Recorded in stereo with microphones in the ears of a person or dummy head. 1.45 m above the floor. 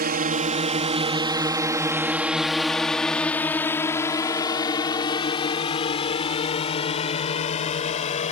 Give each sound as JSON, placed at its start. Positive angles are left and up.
{"t": 0.0, "sound": "a drone", "side_deg": -45}